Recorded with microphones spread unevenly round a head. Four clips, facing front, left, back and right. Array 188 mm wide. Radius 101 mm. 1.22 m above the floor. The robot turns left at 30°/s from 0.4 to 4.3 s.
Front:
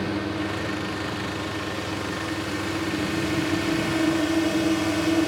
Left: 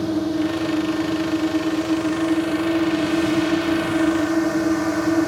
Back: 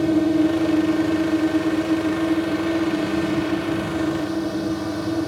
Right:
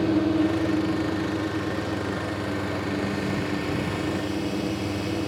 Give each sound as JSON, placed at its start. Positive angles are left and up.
{"t": 0.0, "sound": "a drone", "azimuth_deg": -175}